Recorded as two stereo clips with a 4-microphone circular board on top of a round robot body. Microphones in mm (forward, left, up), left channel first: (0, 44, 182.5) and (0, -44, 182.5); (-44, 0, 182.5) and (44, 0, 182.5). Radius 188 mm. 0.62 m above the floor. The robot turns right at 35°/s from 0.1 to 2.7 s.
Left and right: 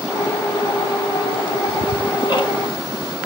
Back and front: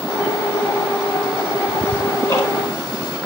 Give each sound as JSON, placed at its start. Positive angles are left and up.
{"t": 1.7, "sound": "ticking", "azimuth_deg": 100, "distance_m": 1.6}